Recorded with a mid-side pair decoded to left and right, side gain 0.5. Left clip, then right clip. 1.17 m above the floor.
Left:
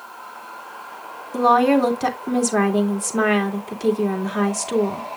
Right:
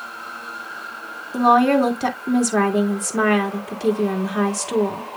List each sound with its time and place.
1.3 s a woman speaking: 5° left, 2.5 m